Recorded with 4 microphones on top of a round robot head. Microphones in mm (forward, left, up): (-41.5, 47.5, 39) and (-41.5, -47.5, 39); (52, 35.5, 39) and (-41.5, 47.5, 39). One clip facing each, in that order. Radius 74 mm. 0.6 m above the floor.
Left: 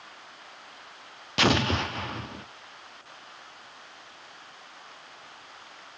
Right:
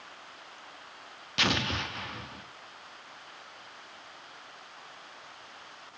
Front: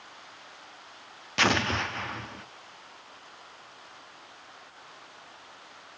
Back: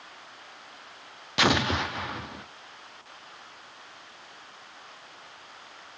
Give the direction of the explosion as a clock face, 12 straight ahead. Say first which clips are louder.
Left 7 dB, back 2 dB; 9 o'clock.